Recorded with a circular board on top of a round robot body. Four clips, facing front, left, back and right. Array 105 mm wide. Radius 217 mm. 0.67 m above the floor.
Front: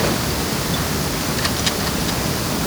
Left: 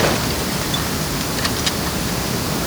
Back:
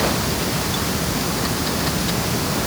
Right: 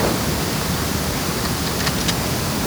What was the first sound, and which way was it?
Only background noise.